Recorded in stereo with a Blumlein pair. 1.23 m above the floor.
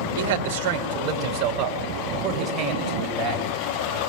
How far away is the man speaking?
About 3.5 m.